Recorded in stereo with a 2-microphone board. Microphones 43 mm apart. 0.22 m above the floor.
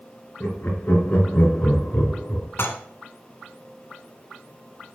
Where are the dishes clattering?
60° left (ahead or behind), 1.3 m.